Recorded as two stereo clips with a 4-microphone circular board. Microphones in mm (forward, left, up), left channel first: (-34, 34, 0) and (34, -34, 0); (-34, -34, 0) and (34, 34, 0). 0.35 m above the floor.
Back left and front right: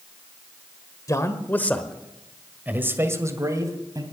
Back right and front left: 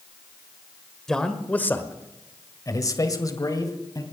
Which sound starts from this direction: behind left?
A man speaking, at 1.1 s.